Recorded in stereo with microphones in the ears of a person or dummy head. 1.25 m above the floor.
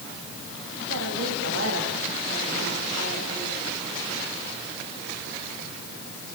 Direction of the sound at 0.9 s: 90° right.